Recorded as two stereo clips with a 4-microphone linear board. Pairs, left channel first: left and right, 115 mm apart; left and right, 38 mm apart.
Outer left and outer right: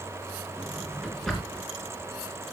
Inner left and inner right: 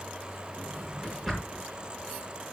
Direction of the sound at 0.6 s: Centre (ahead or behind).